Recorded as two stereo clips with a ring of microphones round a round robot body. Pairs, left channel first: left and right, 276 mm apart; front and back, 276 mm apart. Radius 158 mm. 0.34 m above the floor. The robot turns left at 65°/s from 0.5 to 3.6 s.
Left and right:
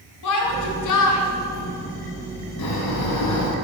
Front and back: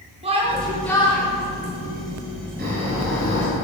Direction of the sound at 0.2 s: 110° left.